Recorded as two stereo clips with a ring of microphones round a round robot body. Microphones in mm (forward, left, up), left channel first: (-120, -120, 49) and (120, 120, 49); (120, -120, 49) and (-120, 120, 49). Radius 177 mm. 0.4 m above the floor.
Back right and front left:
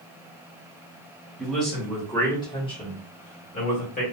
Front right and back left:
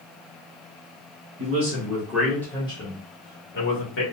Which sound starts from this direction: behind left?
A man speaking, at 1.4 s.